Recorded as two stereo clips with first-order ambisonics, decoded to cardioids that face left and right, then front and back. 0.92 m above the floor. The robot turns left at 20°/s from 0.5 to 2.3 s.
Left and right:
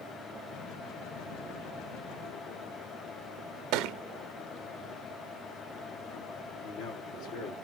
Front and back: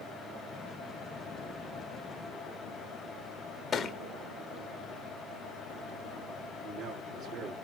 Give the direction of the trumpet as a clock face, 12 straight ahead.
I don't hear a trumpet.